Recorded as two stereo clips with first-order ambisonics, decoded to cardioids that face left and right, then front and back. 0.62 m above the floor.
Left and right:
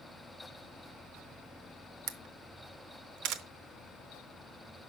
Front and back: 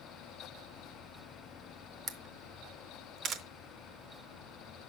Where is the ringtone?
No ringtone in this recording.